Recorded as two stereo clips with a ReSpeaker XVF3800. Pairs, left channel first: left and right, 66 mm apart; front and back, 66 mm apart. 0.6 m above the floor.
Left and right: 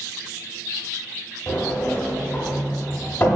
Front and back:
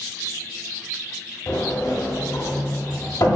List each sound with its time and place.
1.5 s a sliding door: 30° left, 0.9 m